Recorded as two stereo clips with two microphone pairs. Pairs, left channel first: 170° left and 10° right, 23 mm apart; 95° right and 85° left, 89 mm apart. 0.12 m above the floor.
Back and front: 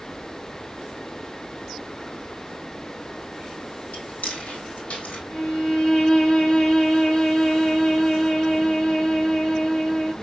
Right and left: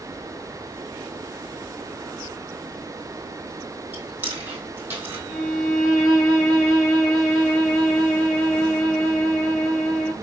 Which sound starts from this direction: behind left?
Chewing, at 3.9 s.